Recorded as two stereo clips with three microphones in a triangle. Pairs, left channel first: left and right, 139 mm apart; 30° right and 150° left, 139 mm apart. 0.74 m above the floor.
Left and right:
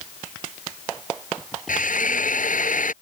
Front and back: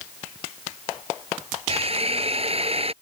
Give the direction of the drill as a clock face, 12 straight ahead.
8 o'clock.